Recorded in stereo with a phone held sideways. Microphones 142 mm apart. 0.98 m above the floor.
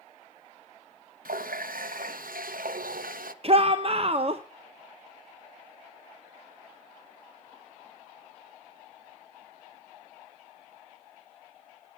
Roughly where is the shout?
Right.